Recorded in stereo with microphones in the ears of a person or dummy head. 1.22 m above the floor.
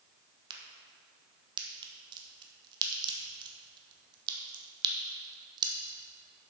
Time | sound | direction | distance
0.5 | a crack | 25° right (ahead or behind) | 1.3 m